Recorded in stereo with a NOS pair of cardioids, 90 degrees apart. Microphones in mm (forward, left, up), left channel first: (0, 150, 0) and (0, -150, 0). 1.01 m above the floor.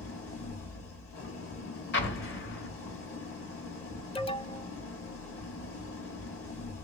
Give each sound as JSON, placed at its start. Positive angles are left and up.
{"t": 0.0, "sound": "an engine running", "azimuth_deg": 45, "distance_m": 1.5}
{"t": 1.9, "sound": "an explosion", "azimuth_deg": 40, "distance_m": 1.3}
{"t": 4.2, "sound": "an alarm", "azimuth_deg": 20, "distance_m": 0.6}